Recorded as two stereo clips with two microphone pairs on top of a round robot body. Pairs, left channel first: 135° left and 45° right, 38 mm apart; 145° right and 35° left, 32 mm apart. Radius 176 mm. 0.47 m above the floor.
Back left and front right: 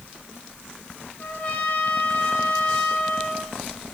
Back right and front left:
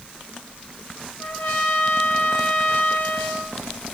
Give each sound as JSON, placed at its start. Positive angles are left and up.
{"t": 1.2, "sound": "a trumpet", "azimuth_deg": -150, "distance_m": 6.0}